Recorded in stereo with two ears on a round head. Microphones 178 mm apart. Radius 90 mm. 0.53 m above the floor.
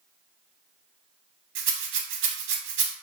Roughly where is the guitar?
I don't hear a guitar.